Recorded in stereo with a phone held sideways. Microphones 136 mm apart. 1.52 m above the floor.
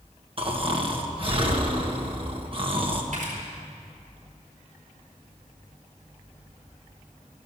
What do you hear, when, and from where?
0.4 s snoring: 40° right (ahead or behind), 1.3 m
3.1 s a camera shutter: 75° right (ahead or behind), 4.5 m